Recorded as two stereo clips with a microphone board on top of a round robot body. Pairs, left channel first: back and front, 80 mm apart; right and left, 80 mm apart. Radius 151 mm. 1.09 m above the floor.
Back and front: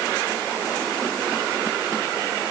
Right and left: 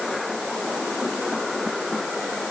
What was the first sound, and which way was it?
Only background noise.